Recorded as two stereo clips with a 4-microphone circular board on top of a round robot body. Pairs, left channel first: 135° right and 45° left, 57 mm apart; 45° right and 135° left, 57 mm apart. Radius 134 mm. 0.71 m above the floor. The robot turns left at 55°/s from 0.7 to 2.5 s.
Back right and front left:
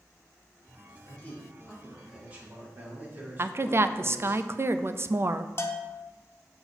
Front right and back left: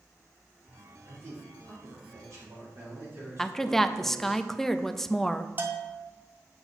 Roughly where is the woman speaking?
Ahead left.